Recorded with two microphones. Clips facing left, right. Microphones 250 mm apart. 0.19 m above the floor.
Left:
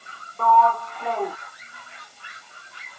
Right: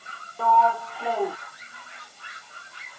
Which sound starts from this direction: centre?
A sliding door, at 0.4 s.